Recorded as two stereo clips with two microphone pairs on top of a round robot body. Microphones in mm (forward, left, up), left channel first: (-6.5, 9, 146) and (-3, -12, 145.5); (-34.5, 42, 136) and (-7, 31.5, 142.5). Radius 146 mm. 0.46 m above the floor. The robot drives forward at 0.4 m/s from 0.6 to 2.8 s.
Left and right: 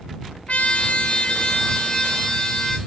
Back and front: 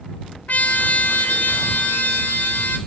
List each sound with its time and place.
0.5 s a trumpet: 125° left, 0.9 m; by 2.8 s 150° left, 1.6 m